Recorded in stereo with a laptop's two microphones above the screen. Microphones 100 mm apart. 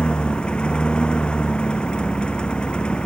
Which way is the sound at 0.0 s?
10° left (ahead or behind).